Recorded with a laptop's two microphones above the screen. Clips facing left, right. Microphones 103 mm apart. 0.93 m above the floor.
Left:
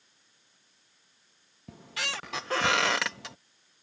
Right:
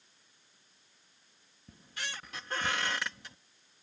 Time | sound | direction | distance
1.7 | a squeak | 75° left (ahead or behind) | ?